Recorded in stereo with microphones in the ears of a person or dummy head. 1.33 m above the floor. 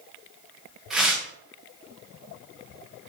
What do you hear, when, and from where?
0.9 s tearing paper: 5° right (ahead or behind), 0.7 m